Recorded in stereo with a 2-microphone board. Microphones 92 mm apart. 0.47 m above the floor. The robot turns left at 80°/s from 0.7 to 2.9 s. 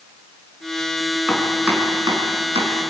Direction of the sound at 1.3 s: 15° left (ahead or behind).